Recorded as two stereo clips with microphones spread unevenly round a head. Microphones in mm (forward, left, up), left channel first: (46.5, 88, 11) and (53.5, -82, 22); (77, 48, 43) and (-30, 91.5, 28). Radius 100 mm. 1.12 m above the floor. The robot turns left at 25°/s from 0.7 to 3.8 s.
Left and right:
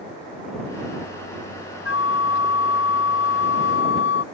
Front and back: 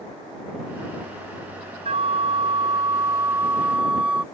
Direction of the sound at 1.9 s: 125° left.